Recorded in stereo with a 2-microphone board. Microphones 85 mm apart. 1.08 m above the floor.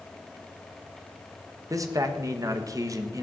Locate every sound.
1.7 s a man speaking: 45° right (ahead or behind), 1.3 m